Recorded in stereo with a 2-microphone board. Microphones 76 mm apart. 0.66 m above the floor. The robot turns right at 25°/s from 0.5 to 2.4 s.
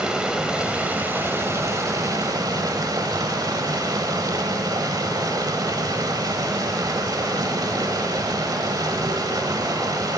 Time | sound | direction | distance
0.0 | running water | 170° right | 1.2 m